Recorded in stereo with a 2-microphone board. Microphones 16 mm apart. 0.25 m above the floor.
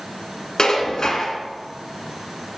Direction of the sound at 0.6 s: 45° left (ahead or behind).